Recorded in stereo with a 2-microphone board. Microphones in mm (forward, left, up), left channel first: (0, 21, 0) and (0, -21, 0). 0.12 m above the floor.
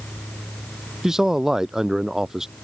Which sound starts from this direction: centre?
A man speaking, at 1.0 s.